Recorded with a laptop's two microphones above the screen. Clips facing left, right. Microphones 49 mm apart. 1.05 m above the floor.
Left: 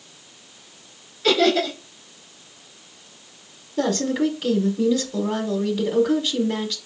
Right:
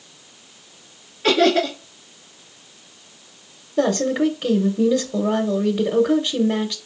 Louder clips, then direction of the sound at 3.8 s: Right 3 dB; 30° right (ahead or behind).